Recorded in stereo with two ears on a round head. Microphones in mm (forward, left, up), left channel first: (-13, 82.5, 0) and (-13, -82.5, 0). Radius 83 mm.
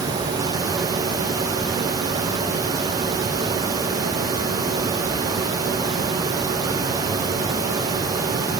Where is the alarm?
No alarm in this recording.